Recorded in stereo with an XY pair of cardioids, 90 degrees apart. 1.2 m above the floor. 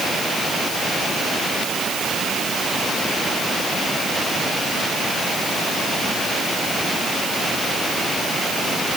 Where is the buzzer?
I don't hear a buzzer.